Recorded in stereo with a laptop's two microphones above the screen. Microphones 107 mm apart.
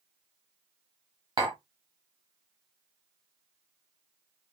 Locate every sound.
1.4 s tapping: 40° right (ahead or behind), 1.5 m